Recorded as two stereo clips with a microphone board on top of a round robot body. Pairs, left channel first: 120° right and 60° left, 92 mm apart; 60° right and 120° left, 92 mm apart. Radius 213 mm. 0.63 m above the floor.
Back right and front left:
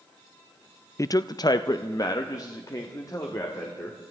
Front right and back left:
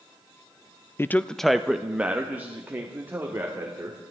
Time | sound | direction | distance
1.0 | a man speaking | 100° right | 0.6 m